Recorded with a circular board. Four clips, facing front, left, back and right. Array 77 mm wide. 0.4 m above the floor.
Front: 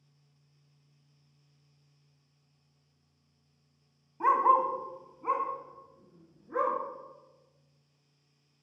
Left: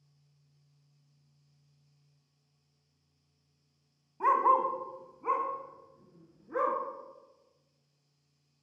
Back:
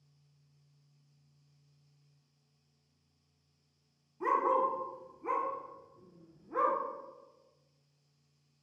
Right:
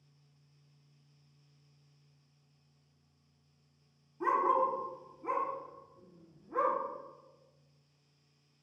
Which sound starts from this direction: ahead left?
A dog barking, at 4.2 s.